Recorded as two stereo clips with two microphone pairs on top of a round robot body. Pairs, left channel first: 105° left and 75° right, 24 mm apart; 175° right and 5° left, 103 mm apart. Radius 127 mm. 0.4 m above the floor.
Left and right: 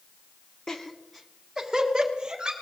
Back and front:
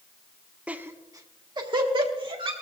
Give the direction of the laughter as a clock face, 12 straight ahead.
10 o'clock.